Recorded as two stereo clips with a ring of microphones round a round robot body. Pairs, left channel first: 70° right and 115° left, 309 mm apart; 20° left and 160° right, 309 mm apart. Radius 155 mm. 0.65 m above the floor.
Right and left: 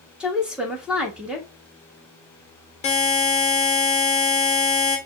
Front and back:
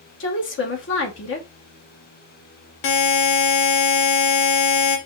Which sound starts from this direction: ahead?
A buzzer, at 2.8 s.